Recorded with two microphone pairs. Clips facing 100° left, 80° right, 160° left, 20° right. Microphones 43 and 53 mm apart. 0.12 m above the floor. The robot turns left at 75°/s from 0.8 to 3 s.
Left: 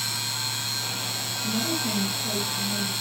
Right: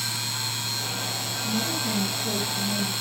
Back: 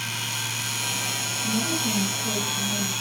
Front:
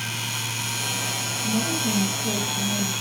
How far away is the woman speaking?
About 2.5 m.